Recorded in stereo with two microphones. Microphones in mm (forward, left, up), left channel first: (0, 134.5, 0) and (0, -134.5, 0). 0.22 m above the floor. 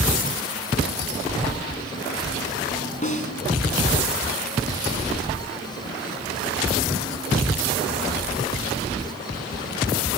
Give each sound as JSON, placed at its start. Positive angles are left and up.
{"t": 3.0, "sound": "a snare drum", "side_deg": 30, "distance_m": 2.0}